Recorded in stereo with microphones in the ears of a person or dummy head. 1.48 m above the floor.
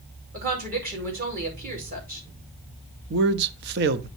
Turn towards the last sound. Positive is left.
turn(degrees=-55)  # may be behind; listen again after turning